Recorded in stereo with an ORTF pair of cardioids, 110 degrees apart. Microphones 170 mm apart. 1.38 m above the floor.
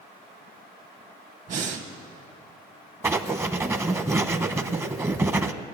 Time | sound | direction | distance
1.5 | breathing | 45° right | 1.5 m
3.0 | writing | 15° right | 0.8 m